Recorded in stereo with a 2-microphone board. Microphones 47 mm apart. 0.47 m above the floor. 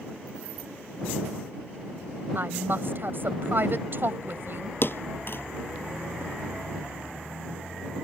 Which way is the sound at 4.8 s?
55° left (ahead or behind).